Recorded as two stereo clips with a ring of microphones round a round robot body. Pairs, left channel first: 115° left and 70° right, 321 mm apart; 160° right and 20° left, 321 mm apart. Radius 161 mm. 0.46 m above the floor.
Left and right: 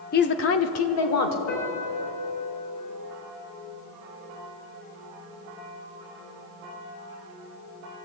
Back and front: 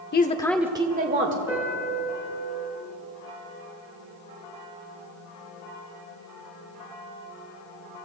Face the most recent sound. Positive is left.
turn(degrees=105)